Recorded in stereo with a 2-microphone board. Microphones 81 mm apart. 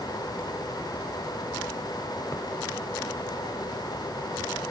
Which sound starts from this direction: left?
A thud, at 2.3 s.